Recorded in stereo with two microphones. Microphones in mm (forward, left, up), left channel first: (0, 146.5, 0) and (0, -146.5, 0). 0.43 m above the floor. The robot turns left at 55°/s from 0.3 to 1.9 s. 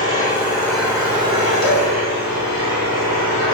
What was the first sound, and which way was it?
An engine running, 25° left.